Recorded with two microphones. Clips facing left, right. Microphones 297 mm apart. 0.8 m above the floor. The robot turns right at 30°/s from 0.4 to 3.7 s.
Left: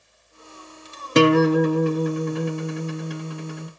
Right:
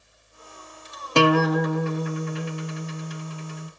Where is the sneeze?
No sneeze in this recording.